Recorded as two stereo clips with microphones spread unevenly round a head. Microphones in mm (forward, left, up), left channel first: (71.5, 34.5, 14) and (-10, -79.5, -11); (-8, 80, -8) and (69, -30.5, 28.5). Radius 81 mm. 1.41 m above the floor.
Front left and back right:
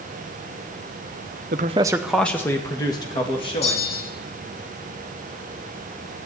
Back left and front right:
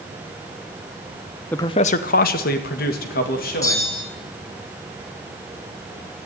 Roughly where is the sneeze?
No sneeze in this recording.